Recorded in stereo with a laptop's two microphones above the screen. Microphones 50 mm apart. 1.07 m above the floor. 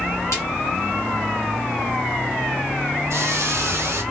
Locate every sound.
0.3 s a snare drum: 80° left, 2 m
3.1 s a hiss: 70° right (ahead or behind), 0.9 m